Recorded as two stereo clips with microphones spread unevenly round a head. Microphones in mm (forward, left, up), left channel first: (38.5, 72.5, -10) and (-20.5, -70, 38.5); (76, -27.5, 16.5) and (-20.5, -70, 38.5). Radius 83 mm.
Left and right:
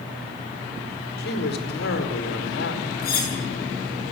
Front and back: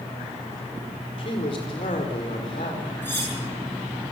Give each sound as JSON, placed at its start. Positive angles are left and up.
{"t": 1.2, "sound": "a man speaking", "azimuth_deg": 70, "distance_m": 4.5}
{"t": 3.0, "sound": "cutlery clinking", "azimuth_deg": 100, "distance_m": 8.0}